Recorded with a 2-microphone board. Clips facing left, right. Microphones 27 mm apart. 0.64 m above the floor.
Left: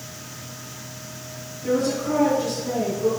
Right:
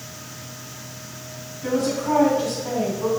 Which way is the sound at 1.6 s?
80° right.